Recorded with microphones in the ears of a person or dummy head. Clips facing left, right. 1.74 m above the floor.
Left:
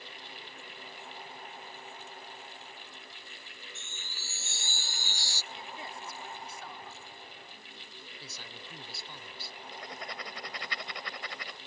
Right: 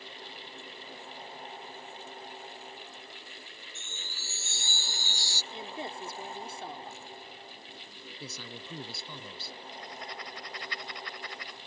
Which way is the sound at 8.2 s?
75° right (ahead or behind).